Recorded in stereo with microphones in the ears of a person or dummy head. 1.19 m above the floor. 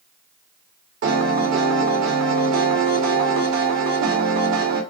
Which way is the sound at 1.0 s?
70° right (ahead or behind).